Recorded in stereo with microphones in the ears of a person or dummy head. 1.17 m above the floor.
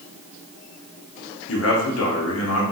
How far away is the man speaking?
About 0.9 m.